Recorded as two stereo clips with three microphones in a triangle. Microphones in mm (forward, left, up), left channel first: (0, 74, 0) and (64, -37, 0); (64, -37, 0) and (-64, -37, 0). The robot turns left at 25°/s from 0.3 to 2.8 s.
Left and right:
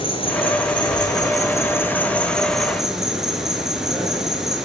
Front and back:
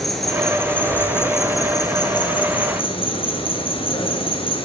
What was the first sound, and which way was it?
An insect, 90° left.